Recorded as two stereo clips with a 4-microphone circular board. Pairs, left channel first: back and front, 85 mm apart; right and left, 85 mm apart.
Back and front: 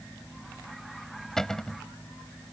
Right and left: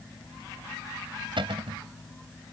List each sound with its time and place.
1.4 s a cupboard door: 95° left